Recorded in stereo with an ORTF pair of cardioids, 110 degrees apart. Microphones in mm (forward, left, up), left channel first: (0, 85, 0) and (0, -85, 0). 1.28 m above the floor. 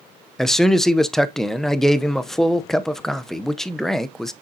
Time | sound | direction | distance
0.4 | a man speaking | straight ahead | 0.7 m